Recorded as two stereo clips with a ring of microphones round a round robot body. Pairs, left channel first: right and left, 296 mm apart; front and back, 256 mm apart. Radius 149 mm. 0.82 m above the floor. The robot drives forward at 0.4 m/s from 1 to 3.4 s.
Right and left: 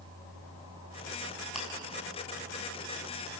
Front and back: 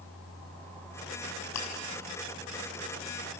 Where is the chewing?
Straight ahead, 4.5 m.